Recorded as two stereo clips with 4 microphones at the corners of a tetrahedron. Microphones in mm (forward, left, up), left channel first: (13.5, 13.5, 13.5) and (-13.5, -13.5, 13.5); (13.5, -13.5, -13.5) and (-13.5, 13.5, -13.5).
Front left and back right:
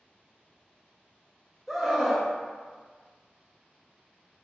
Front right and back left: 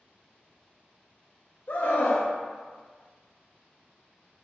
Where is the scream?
45° right, 0.7 m.